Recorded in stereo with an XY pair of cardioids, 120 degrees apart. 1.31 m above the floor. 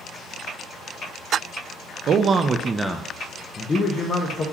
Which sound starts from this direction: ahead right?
A man speaking, at 2.1 s.